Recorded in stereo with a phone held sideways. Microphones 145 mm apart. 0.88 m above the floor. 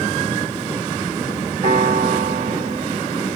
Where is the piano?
85° right, 2.5 m.